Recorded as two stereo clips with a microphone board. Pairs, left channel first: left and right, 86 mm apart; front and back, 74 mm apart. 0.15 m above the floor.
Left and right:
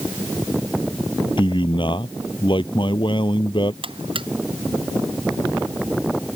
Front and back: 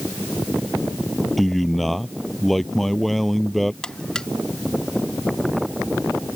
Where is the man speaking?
85° left.